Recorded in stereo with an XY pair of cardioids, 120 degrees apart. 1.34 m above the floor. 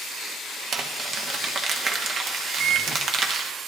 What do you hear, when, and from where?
0.7 s crumpling: 50° right, 1.0 m
2.6 s a microwave: 70° right, 0.7 m